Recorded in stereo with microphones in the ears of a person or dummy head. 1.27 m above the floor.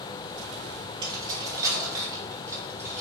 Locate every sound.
1.0 s keys jangling: 20° right (ahead or behind), 1.9 m; by 3.0 s 10° right (ahead or behind), 4 m